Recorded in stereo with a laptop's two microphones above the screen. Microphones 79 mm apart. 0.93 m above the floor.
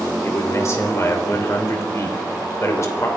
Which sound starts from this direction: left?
A man speaking, at 0.2 s.